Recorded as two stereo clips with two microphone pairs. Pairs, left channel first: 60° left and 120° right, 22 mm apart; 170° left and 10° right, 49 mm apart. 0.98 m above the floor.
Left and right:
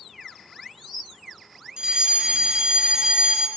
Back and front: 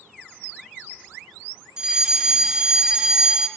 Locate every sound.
1.8 s a fire alarm: 80° right, 3 m